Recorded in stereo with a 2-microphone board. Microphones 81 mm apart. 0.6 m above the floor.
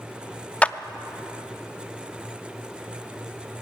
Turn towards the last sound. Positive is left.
turn(degrees=15)  # may be behind; listen again after turning